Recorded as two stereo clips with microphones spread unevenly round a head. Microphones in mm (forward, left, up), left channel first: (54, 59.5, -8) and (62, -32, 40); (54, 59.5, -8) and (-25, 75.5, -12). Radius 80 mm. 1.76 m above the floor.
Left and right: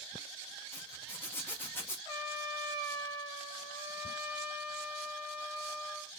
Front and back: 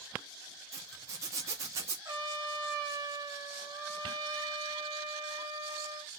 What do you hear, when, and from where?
0.7 s a zipper: 165° right, 0.8 m
2.0 s a trumpet: 175° right, 1.0 m